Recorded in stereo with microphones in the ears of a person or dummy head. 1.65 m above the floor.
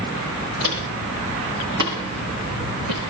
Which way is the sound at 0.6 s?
65° right (ahead or behind).